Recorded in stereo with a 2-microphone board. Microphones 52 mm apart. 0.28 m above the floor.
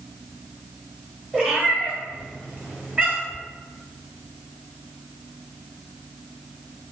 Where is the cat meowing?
30° right (ahead or behind), 1.5 m.